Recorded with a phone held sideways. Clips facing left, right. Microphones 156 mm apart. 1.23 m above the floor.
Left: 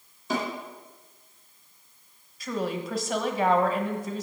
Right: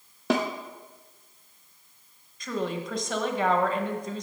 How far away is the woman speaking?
About 0.9 m.